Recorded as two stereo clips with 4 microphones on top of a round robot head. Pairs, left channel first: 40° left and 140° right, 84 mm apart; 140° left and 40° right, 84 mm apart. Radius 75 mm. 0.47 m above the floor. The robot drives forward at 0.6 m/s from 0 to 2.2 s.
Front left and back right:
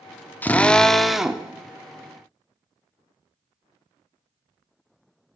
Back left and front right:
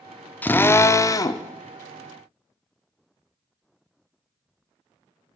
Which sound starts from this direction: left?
A drill, at 0.4 s.